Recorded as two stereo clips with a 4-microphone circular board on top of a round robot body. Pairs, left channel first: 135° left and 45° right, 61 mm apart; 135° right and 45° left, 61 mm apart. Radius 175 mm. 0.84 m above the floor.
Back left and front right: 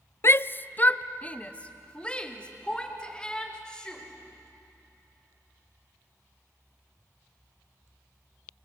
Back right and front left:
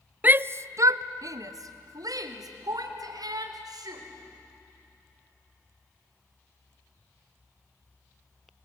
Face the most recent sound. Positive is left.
turn(degrees=55)